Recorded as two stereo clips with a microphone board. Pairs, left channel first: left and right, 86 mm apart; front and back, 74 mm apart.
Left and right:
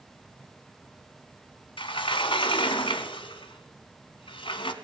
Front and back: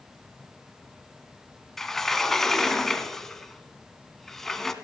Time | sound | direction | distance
1.8 | a sliding door | 85° left | 0.7 m